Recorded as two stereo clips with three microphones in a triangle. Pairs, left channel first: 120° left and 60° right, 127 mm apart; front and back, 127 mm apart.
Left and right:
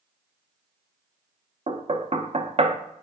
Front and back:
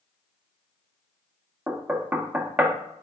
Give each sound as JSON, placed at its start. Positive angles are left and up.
{"t": 1.7, "sound": "knocking", "azimuth_deg": -105, "distance_m": 0.5}